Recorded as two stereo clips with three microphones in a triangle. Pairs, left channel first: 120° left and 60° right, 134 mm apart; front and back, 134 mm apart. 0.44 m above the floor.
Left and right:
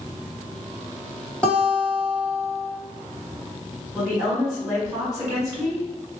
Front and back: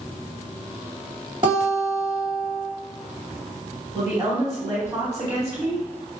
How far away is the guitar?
About 1.5 m.